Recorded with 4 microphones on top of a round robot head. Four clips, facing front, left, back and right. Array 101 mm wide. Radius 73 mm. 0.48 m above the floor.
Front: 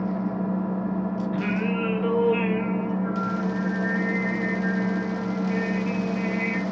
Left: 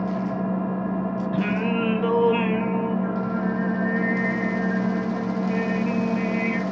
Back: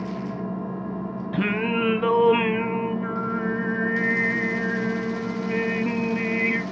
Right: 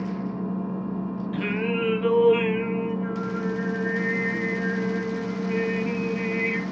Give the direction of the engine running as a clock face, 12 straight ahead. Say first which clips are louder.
Left 4 dB, front 3 dB; 10 o'clock.